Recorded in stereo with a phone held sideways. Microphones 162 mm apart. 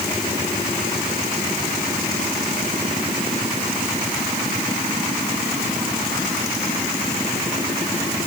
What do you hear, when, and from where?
Only background noise.